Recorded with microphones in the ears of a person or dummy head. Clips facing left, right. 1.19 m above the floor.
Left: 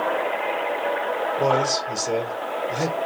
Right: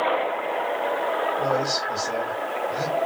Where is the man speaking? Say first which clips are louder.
Left 3 dB; 55° left (ahead or behind), 1.4 m.